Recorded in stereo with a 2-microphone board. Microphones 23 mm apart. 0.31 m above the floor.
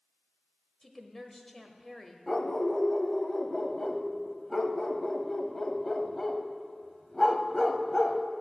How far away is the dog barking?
About 0.7 m.